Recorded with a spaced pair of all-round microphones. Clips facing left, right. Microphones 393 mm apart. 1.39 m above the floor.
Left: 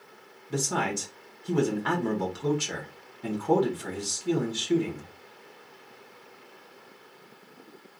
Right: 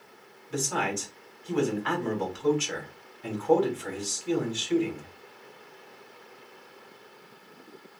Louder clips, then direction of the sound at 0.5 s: Left 1 dB; 55° left (ahead or behind).